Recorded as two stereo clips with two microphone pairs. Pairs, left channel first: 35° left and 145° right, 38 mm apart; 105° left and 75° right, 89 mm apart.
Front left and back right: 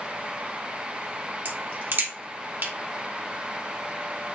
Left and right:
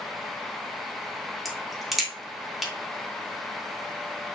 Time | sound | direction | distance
1.4 | a crack | 160° right | 2.5 m